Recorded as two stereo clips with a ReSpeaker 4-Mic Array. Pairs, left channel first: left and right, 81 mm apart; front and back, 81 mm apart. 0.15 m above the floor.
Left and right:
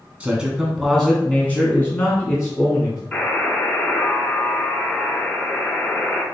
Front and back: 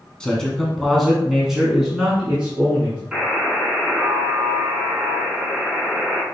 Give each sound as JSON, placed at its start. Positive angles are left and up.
{"t": 0.2, "sound": "a man speaking", "azimuth_deg": -55, "distance_m": 1.0}
{"t": 3.1, "sound": "a buzzer", "azimuth_deg": 105, "distance_m": 1.6}